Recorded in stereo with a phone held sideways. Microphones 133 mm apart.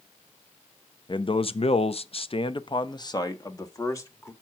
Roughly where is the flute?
No flute in this recording.